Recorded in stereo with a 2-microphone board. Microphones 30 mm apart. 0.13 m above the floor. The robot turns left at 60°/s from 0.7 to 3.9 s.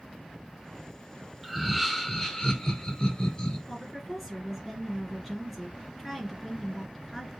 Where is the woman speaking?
10° left (ahead or behind), 2 m; by 7.3 s centre (ahead or behind), 2 m.